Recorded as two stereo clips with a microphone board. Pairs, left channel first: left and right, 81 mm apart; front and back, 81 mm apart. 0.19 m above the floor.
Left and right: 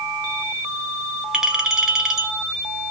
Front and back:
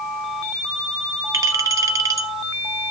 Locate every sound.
1.3 s a clink: 170° right, 1.1 m